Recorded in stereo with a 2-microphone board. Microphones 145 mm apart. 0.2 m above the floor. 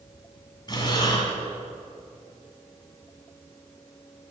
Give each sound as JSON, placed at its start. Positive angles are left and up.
{"t": 0.7, "sound": "breathing", "side_deg": 30, "distance_m": 1.9}